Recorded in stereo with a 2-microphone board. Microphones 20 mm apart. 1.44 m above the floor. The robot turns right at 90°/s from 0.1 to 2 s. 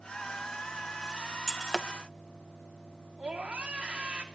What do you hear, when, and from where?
1.5 s breaking glass: 15° left (ahead or behind), 0.7 m; by 1.9 s 10° right (ahead or behind), 0.7 m
3.2 s a scream: 70° right (ahead or behind), 3 m